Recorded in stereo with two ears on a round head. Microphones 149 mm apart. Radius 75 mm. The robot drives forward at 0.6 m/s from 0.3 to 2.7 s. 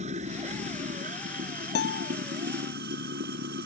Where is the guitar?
70° left (ahead or behind).